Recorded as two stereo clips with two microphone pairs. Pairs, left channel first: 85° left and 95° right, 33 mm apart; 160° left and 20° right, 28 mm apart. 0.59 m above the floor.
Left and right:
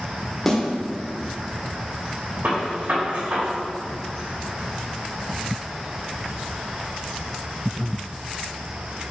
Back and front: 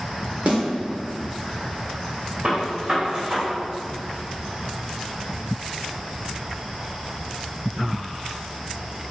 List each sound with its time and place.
0.5 s a snare drum: 5° left, 2.5 m
2.4 s a gunshot: 75° right, 3 m